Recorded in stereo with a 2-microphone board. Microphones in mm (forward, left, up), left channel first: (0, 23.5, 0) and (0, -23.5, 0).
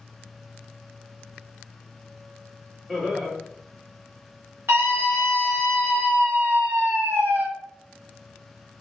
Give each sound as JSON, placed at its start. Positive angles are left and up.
{"t": 2.9, "sound": "laughter", "side_deg": -5, "distance_m": 1.6}
{"t": 4.7, "sound": "a scream", "side_deg": -50, "distance_m": 1.9}